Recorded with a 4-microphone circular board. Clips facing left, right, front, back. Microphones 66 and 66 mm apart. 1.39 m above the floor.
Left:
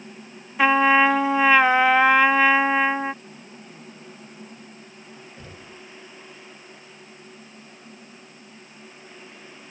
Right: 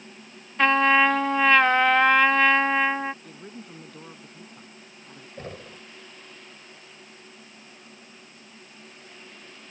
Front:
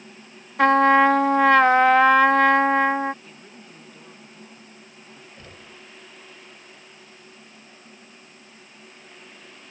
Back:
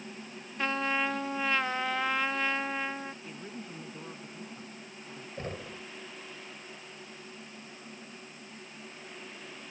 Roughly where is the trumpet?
Ahead.